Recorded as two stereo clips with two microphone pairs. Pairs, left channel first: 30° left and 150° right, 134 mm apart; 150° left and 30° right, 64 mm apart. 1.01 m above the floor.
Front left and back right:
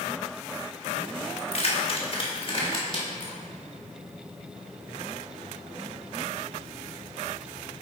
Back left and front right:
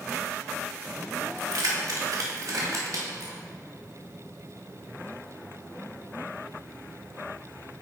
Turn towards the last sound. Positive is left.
turn(degrees=-25)